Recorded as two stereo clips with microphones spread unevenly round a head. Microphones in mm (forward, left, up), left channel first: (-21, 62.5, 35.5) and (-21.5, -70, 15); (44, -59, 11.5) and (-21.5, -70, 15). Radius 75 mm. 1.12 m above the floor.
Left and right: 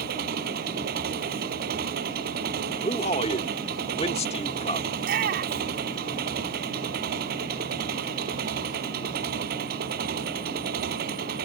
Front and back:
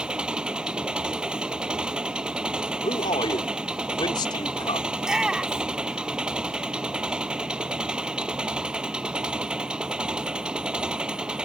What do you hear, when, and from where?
0.0 s an engine running: 95° right
2.8 s a man speaking: 40° left
5.0 s a shout: 90° right